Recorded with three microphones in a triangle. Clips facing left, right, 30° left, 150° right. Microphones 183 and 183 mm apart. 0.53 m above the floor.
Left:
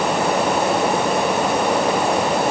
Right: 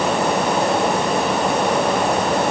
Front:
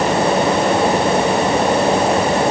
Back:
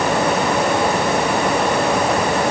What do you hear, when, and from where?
Only background noise.